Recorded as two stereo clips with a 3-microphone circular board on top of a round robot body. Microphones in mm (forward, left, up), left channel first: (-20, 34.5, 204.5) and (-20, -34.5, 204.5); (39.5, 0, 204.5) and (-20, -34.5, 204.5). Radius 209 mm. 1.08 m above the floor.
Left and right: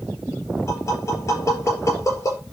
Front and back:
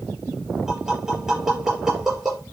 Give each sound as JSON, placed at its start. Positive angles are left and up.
{"t": 0.7, "sound": "tapping", "azimuth_deg": 130, "distance_m": 5.5}